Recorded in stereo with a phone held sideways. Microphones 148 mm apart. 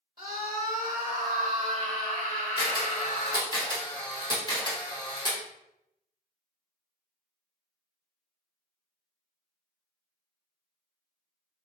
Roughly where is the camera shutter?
Left.